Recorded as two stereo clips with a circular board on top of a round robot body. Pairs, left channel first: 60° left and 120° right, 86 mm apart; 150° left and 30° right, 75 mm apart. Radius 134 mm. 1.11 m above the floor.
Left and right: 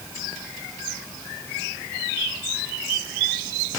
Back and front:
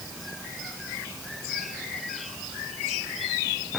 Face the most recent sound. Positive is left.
No sound to turn to.